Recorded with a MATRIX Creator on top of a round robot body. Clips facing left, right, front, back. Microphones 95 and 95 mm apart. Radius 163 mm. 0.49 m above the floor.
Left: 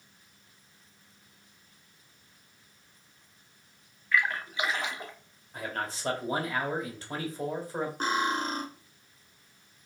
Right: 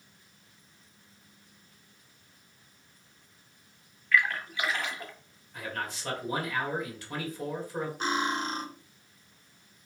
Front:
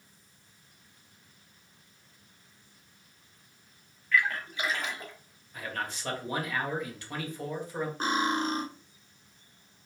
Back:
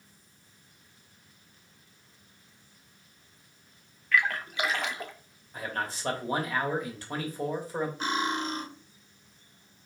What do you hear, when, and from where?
4.1 s a splash: 160° left, 0.6 m
5.5 s a man speaking: 135° left, 1.5 m
8.0 s cutlery clinking: 50° left, 1.3 m